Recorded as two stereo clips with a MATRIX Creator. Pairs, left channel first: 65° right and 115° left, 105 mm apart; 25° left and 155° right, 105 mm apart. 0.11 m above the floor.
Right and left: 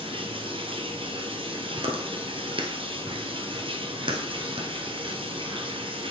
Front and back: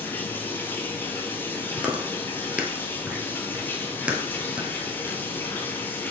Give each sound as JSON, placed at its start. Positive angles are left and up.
{"t": 0.0, "sound": "running water", "azimuth_deg": 90, "distance_m": 1.1}
{"t": 1.8, "sound": "chewing", "azimuth_deg": 125, "distance_m": 1.0}